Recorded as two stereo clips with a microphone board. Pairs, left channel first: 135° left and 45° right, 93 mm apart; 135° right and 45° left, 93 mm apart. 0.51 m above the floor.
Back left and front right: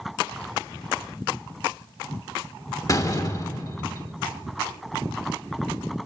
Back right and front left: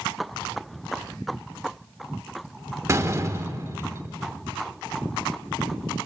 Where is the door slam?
95° left, 0.9 m.